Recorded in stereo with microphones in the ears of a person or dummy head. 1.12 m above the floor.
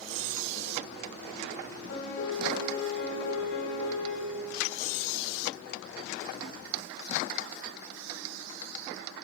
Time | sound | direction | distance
1.9 | a piano | 70° left (ahead or behind) | 2.0 m